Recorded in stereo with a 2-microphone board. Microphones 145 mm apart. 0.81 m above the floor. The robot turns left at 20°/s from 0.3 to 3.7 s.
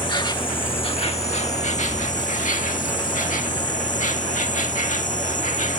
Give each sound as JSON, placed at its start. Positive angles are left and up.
{"t": 0.0, "sound": "an insect", "azimuth_deg": 145}